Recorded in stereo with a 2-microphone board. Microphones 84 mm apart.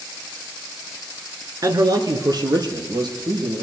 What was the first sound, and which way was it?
A man speaking, 45° right (ahead or behind).